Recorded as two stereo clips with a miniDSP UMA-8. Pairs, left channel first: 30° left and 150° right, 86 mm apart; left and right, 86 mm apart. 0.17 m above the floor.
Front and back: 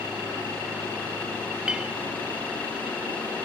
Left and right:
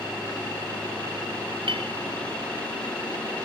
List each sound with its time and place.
1.7 s a clink: 70° right